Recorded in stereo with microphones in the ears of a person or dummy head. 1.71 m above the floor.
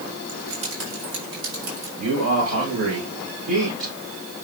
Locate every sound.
0.3 s keys jangling: 80° right, 8 m; by 1.9 s 85° right, 9 m
2.0 s a man speaking: 75° right (ahead or behind), 7 m